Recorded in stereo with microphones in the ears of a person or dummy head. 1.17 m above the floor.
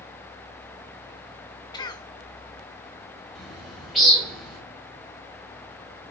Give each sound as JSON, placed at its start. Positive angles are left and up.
{"t": 1.7, "sound": "a cough", "side_deg": 25, "distance_m": 1.2}
{"t": 3.4, "sound": "a bird", "side_deg": 0, "distance_m": 3.0}